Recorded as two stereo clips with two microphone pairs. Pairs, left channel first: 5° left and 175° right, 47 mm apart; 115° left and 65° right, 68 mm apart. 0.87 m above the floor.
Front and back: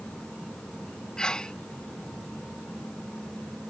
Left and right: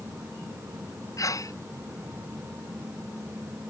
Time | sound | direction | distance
1.2 | a sneeze | 80° left | ?